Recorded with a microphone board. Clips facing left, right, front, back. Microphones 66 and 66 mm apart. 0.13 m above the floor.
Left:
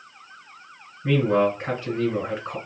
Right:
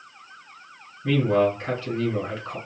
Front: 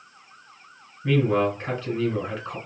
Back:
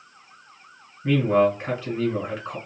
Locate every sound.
1.0 s a man speaking: 120° left, 1.5 m